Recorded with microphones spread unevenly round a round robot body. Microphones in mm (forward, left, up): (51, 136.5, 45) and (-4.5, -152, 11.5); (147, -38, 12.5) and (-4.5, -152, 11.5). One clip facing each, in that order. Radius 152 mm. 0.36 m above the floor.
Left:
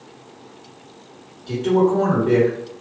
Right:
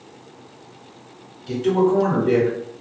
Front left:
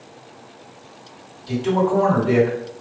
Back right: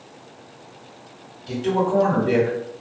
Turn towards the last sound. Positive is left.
turn(degrees=-175)